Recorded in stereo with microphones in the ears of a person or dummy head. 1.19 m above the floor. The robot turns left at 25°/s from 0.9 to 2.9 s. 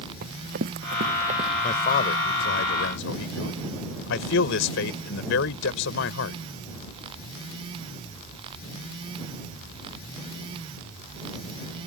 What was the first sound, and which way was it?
Running footsteps, 50° right (ahead or behind).